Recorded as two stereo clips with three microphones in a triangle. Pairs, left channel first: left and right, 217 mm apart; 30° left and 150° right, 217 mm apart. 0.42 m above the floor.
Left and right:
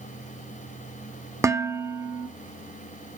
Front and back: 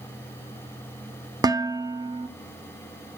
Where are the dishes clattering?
135° right, 0.7 m.